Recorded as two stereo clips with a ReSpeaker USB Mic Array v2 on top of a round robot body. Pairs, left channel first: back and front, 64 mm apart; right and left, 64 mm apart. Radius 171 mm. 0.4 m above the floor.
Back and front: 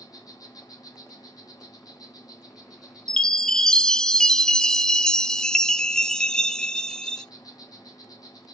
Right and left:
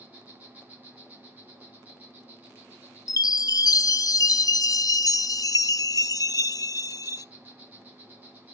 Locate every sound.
0.0 s an insect: 155° left, 2.5 m
3.1 s a chime: 100° right, 0.5 m